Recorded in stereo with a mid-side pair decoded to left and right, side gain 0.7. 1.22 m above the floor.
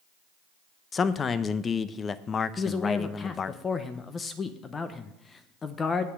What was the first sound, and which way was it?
A man speaking, 30° left.